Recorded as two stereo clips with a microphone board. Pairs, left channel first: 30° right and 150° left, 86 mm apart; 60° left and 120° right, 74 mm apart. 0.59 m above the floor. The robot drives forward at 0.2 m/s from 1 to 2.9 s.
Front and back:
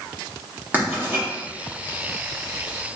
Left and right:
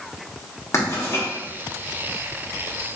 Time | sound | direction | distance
0.7 | writing | 95° left | 1.3 m